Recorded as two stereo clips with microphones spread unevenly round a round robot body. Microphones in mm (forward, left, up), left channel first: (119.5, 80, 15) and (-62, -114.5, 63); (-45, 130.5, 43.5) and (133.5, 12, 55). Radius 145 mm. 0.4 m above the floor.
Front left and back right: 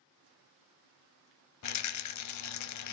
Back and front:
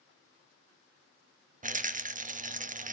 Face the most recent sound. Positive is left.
turn(degrees=25)